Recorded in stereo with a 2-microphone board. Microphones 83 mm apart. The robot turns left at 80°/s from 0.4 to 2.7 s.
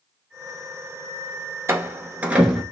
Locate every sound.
1.7 s a door slam: 30° right (ahead or behind), 0.9 m; by 2.6 s 5° right (ahead or behind), 0.9 m